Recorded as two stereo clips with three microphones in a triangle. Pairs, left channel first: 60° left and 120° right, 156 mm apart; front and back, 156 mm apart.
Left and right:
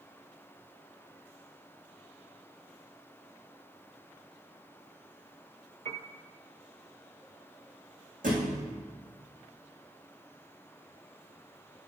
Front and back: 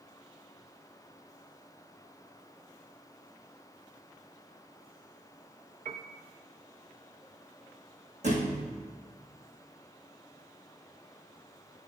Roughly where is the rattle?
No rattle in this recording.